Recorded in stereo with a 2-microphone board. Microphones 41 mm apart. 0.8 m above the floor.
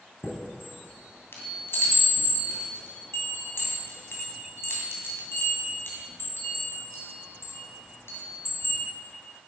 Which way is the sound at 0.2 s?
75° left (ahead or behind).